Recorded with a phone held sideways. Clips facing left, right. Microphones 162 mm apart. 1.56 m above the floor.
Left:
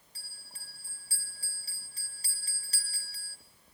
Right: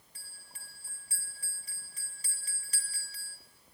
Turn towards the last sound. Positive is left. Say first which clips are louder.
# even
turn(degrees=35)  # may be behind; listen again after turning